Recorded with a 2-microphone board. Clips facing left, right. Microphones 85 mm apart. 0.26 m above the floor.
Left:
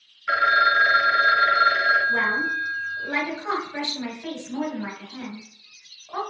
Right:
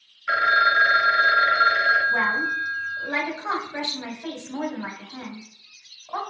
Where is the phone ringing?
Centre (ahead or behind), 0.5 m.